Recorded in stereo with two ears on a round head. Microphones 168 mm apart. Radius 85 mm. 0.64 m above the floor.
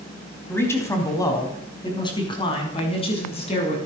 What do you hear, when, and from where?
0.5 s a man speaking: 10° left (ahead or behind), 4 m; by 3.8 s 35° left (ahead or behind), 6 m